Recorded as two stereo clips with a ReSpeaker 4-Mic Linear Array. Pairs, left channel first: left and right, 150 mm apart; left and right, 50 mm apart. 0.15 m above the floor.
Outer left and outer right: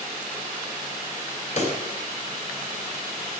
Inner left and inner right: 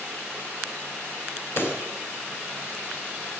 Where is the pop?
55° left (ahead or behind), 3.5 m.